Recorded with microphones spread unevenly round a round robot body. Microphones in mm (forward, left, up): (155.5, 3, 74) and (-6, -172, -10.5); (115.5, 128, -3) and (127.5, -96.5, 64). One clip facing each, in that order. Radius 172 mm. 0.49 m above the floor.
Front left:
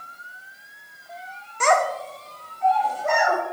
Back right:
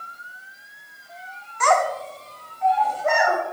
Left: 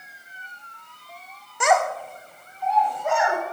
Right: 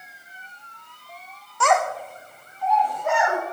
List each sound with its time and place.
1.6 s a child speaking: 115° left, 0.6 m; by 3.4 s 135° right, 2.5 m